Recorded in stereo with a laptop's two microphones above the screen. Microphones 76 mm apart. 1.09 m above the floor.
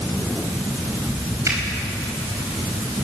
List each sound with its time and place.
1.4 s a finger snap: 40° right (ahead or behind), 4 m